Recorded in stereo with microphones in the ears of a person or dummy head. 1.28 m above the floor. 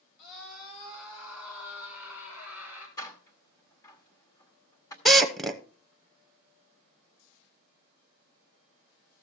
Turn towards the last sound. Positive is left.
turn(degrees=5)  # may be behind; listen again after turning